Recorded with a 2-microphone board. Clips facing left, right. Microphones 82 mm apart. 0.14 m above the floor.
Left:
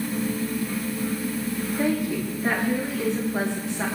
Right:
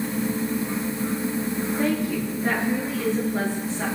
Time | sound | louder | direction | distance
1.8 | a woman speaking | left 1 dB | 20° left (ahead or behind) | 8 m